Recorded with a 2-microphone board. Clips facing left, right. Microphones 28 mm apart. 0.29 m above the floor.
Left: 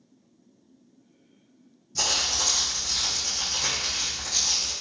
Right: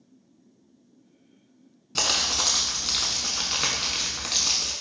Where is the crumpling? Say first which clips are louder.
Right 1 dB; 80° right, 0.6 m.